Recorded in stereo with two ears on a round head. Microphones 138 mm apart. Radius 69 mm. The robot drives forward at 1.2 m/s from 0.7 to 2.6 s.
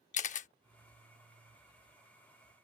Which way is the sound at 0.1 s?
50° left (ahead or behind).